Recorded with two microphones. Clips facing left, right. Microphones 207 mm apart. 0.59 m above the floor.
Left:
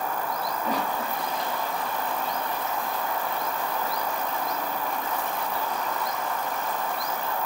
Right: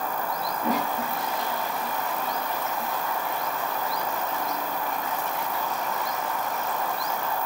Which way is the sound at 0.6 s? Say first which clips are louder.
Right 3 dB; 85° right.